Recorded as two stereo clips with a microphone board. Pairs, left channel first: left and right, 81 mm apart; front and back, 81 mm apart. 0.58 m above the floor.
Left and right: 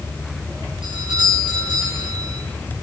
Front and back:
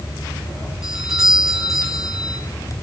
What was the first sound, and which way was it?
A doorbell, 95° right.